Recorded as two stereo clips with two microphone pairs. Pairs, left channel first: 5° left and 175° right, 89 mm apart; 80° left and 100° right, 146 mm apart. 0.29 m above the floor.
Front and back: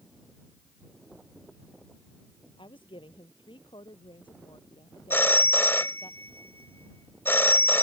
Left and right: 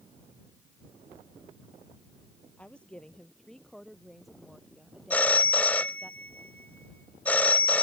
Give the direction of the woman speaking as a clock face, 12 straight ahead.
12 o'clock.